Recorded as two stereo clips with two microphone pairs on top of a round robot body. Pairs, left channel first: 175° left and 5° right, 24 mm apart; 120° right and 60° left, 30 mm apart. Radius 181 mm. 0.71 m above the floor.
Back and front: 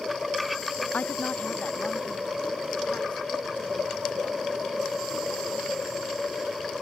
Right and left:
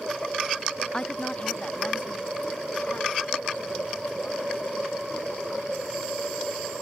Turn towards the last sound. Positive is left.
turn(degrees=-150)